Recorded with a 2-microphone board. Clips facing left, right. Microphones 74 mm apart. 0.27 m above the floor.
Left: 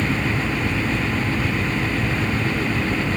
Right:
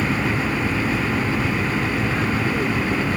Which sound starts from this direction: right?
An aircraft, at 0.0 s.